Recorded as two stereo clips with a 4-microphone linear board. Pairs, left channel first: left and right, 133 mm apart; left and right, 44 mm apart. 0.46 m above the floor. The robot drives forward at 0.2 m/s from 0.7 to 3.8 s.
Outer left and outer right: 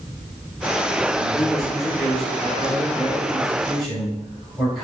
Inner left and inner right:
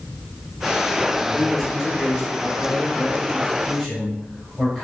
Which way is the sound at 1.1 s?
Centre (ahead or behind).